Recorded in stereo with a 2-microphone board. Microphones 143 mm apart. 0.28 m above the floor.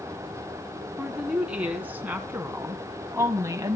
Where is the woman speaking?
5° right (ahead or behind), 3.5 m; by 3.8 s 25° right (ahead or behind), 1.7 m.